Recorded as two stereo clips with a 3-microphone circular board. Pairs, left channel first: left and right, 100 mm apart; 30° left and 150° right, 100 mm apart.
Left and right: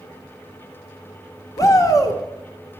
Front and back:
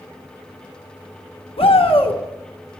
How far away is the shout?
About 1.3 m.